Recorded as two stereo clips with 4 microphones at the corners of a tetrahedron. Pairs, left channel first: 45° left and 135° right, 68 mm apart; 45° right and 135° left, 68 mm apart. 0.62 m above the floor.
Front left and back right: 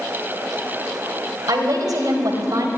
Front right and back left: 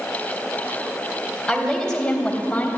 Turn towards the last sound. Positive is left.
turn(degrees=-115)